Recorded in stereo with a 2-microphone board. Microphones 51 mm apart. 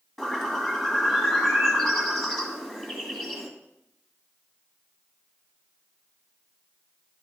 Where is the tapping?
No tapping in this recording.